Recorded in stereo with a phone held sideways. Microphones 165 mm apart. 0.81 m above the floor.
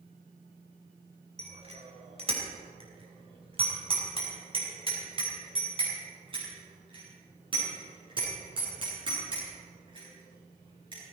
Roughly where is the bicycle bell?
Right.